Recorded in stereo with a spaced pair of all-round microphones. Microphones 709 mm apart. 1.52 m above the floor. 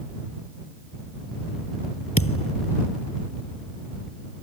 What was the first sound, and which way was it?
A thud, 15° left (ahead or behind).